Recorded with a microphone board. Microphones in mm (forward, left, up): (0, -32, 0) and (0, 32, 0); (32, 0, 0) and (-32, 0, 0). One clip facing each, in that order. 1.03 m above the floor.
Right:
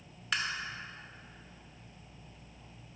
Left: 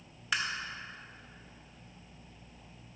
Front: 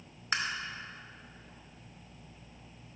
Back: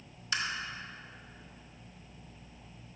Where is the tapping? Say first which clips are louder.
Left 1 dB, front 2 dB; 5° left, 0.8 m.